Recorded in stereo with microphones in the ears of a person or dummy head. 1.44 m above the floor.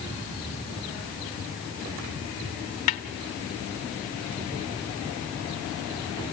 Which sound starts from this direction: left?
A snare drum, at 2.9 s.